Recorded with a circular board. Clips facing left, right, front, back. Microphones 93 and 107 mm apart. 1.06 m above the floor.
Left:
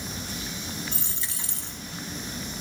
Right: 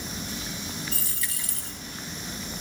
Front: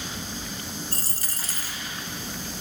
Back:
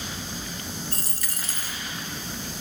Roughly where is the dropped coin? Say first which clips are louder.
Even, even; ahead left.